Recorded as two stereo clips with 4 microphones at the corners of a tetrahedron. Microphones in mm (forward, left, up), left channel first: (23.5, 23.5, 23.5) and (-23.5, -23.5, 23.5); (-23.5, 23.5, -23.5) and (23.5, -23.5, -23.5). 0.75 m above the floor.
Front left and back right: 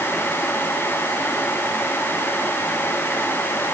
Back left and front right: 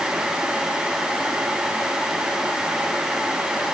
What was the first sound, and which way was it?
Only background noise.